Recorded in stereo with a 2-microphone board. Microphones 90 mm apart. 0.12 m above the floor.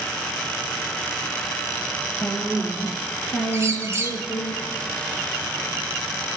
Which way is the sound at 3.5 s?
35° right (ahead or behind).